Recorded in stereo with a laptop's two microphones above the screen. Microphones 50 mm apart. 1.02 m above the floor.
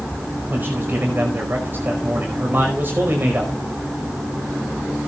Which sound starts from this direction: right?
A man speaking, at 0.5 s.